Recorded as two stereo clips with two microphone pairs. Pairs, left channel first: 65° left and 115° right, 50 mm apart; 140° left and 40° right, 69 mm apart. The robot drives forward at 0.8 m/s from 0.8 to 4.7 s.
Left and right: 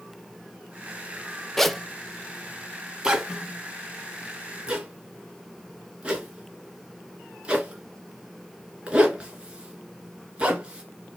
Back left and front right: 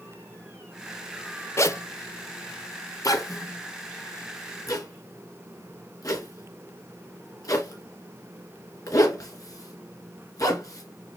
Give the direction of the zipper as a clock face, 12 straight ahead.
7 o'clock.